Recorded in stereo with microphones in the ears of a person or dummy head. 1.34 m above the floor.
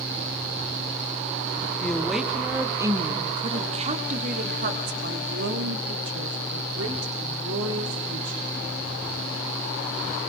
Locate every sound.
1.8 s a woman speaking: 5° left (ahead or behind), 2 m; by 8.4 s 85° right, 4 m